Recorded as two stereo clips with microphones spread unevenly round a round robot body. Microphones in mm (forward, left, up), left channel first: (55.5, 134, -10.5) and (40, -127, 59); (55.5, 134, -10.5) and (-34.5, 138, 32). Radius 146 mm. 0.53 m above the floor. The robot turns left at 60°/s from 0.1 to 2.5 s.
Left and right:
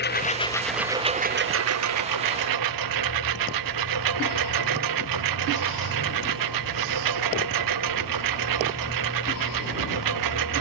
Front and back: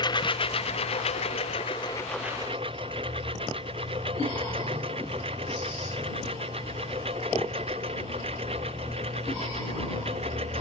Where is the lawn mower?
35° left; by 10.6 s 120° right.